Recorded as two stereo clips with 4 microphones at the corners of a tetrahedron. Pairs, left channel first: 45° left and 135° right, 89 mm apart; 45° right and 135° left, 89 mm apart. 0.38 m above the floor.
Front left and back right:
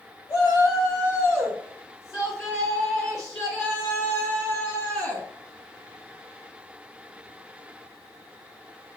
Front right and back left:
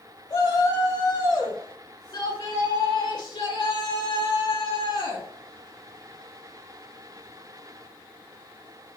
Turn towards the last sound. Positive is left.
turn(degrees=-20)